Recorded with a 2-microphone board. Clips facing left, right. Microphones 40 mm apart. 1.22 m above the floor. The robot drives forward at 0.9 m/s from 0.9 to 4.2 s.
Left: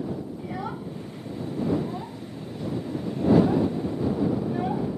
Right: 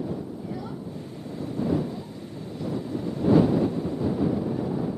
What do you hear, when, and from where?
0.4 s a child speaking: 40° left (ahead or behind); by 5.0 s 60° left (ahead or behind)